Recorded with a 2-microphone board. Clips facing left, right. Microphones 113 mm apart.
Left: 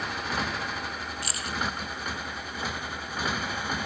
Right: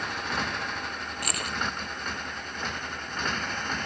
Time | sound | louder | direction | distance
0.0 | a motorcycle | even | centre (ahead or behind) | ?
1.2 | keys jangling | right 4 dB | 60° right (ahead or behind) | ?